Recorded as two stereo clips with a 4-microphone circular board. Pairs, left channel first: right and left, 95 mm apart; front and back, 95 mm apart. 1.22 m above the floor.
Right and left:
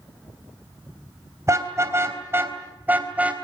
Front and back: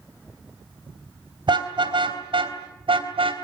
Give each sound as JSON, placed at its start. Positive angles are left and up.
{"t": 1.5, "sound": "a car horn", "azimuth_deg": 150, "distance_m": 3.5}